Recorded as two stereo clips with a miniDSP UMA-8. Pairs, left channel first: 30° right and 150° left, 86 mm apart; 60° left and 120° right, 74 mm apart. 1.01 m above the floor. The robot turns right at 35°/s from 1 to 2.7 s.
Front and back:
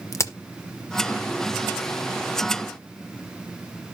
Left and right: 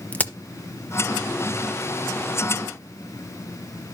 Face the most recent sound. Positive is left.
turn(degrees=60)